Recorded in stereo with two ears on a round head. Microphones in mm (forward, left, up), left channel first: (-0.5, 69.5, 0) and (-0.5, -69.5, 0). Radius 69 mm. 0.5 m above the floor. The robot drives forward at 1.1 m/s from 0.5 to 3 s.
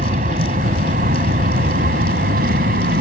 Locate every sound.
0.0 s an aircraft: 50° right (ahead or behind); by 3.0 s 60° right (ahead or behind)